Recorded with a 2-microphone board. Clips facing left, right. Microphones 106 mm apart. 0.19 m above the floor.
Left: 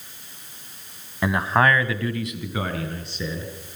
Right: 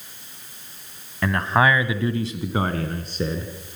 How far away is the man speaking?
About 1.2 m.